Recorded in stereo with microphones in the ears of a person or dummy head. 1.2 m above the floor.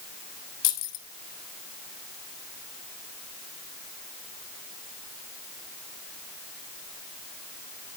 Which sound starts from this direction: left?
Keys jangling, at 0.6 s.